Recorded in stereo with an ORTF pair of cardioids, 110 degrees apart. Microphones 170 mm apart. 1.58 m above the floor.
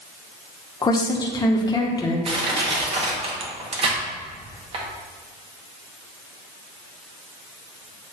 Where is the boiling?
No boiling in this recording.